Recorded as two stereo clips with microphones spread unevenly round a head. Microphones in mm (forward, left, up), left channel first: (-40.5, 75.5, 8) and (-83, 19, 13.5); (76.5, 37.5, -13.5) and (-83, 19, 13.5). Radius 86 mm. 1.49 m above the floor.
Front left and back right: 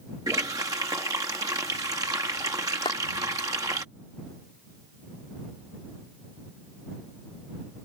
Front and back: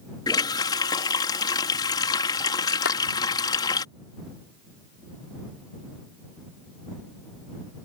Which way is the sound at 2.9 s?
10° left.